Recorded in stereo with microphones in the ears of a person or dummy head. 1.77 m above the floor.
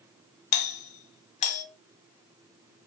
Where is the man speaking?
I don't hear a man speaking.